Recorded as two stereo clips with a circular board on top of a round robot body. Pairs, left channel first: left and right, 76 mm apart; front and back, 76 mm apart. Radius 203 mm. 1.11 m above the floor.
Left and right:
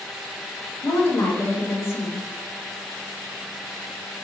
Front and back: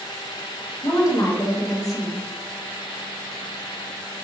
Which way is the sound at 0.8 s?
40° left.